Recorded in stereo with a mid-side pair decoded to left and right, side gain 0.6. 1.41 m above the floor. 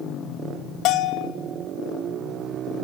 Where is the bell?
65° left, 0.9 m.